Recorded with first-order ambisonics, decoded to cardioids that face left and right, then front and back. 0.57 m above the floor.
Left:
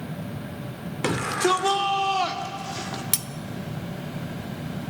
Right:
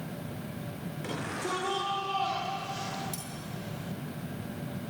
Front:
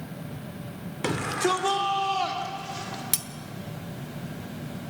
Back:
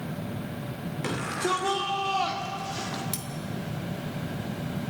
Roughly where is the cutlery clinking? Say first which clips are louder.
Left 12 dB, front 5 dB; ahead left.